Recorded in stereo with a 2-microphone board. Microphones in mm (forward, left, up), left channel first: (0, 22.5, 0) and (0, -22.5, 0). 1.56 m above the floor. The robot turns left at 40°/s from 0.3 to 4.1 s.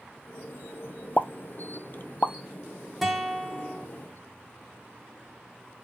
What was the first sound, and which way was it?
A pop, 35° left (ahead or behind).